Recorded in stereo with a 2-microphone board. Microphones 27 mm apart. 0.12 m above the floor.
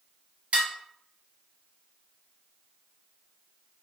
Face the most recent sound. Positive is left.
turn(degrees=-45)  # may be behind; listen again after turning